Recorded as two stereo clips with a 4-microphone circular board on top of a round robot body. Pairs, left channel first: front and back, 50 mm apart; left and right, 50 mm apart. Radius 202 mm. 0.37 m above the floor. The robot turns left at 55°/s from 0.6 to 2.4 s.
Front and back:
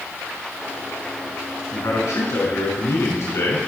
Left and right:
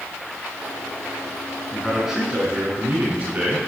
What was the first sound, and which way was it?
A man speaking, 10° left.